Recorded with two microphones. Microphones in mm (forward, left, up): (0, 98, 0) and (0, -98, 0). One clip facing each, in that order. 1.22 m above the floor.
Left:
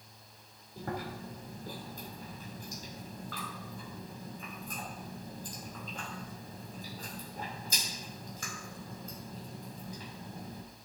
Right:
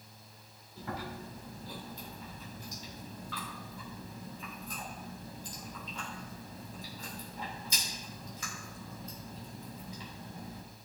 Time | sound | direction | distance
0.8 | chewing | 50° left (ahead or behind) | 2.5 m